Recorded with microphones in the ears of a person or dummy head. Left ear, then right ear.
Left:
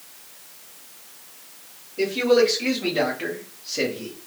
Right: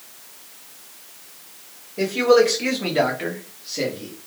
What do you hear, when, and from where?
2.0 s a man speaking: 40° right (ahead or behind), 1.2 m; by 4.1 s 35° left (ahead or behind), 0.8 m